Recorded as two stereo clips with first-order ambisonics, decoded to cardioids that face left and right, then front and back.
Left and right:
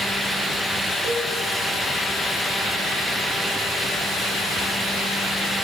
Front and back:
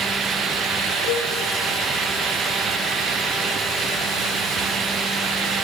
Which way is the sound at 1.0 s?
165° right.